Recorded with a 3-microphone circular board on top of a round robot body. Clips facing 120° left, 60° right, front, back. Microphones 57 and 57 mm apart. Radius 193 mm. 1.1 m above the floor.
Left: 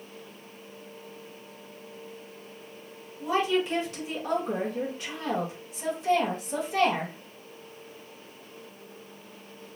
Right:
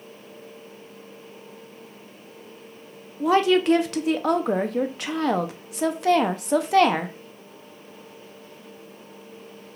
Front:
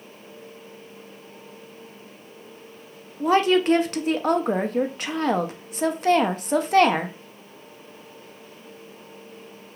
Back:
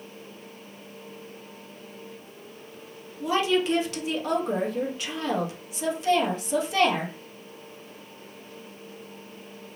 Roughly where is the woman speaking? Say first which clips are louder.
Right 7 dB, front 5 dB; ahead right.